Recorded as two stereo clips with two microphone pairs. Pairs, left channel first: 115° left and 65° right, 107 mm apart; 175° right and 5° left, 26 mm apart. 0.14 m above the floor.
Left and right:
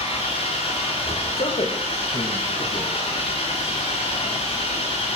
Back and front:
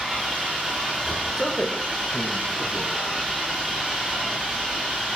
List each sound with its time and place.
0.0 s an engine running: 90° left, 8 m
1.4 s a man speaking: 110° left, 5.5 m